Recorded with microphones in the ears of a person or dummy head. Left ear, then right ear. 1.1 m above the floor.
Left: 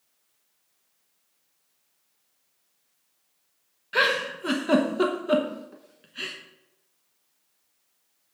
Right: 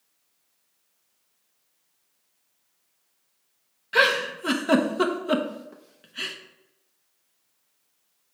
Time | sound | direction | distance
3.9 | a giggle | 5° right (ahead or behind) | 0.7 m